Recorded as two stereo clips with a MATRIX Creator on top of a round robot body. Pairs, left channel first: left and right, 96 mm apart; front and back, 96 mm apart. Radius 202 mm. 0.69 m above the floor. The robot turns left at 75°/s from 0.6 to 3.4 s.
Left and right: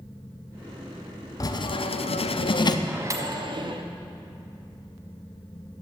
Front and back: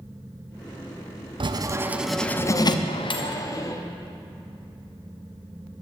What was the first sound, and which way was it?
Writing, 145° left.